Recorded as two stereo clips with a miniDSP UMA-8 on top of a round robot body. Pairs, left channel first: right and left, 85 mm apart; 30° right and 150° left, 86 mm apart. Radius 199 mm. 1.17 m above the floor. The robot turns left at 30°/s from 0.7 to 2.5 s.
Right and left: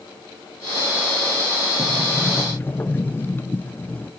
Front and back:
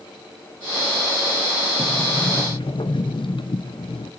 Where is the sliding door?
Straight ahead, 1.5 m; by 4.1 s 25° right, 1.5 m.